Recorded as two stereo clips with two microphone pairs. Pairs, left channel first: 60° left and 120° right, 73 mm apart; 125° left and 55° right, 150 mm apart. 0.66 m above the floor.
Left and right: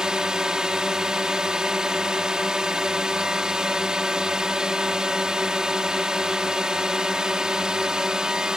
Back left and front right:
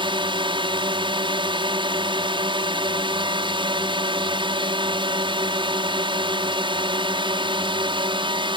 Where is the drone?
45° right.